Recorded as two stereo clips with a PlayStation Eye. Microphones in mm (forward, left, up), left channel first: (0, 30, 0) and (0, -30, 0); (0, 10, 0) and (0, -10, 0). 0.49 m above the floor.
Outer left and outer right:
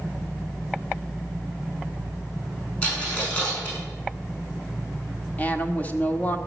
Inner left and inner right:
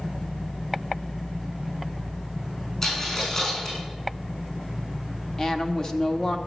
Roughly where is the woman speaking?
Left.